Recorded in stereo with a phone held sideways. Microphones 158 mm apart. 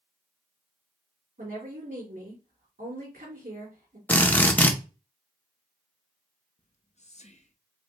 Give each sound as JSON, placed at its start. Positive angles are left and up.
{"t": 1.4, "sound": "a woman speaking", "side_deg": -65, "distance_m": 2.5}
{"t": 4.1, "sound": "a drill", "side_deg": 10, "distance_m": 0.6}
{"t": 6.6, "sound": "whispering", "side_deg": 45, "distance_m": 0.7}